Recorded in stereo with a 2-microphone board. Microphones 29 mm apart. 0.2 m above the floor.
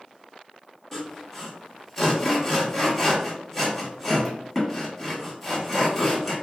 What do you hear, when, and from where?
0.9 s sawing: 5° left (ahead or behind), 1.0 m